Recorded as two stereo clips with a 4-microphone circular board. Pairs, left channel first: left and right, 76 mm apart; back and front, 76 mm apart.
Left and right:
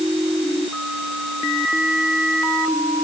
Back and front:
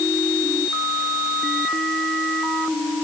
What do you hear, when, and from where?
Only background noise.